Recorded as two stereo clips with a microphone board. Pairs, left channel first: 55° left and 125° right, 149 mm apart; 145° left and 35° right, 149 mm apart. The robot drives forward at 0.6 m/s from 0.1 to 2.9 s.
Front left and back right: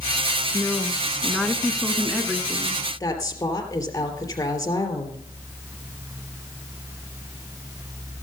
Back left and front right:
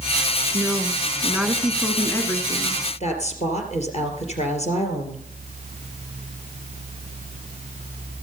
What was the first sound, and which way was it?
A woman speaking, 5° left.